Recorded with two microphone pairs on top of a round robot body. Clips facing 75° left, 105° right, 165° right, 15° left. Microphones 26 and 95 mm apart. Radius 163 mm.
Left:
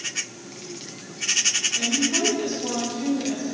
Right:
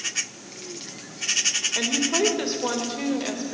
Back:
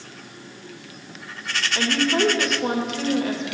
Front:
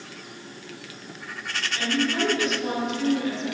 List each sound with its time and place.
1.8 s a woman speaking: 130° right, 2.5 m